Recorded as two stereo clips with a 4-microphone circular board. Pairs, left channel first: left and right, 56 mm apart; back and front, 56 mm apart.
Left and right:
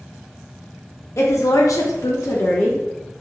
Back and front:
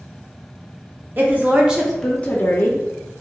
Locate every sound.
1.2 s a woman speaking: 55° left, 0.9 m; by 2.8 s 145° left, 0.7 m